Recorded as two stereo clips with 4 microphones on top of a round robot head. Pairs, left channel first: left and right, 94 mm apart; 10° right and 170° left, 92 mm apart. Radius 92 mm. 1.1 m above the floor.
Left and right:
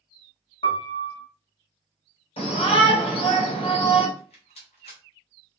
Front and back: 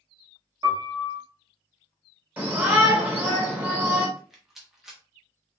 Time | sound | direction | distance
0.6 | a piano | 120° left | 1.0 m
2.4 | a shout | 95° left | 1.6 m
4.2 | a rattle | 85° left | 0.7 m